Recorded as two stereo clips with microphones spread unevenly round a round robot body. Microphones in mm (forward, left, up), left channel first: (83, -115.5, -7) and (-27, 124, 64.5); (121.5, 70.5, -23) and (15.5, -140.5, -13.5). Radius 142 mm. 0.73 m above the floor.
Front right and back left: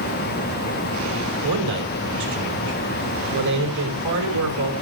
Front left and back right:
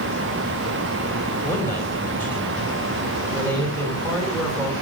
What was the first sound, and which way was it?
A man speaking, 145° left.